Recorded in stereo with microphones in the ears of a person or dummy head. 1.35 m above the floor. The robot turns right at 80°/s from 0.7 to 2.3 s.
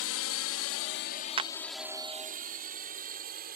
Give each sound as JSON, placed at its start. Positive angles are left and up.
{"t": 0.0, "sound": "a drone", "side_deg": 65}
{"t": 1.4, "sound": "a clap", "side_deg": -25}